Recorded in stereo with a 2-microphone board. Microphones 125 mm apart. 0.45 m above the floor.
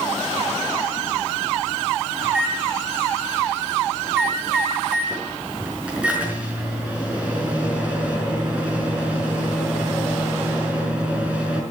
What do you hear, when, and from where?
2.2 s a microwave: 10° right (ahead or behind), 5 m